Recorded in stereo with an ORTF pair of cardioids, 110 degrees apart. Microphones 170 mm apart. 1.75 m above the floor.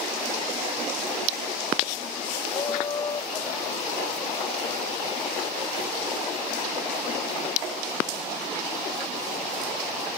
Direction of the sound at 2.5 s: 30° left.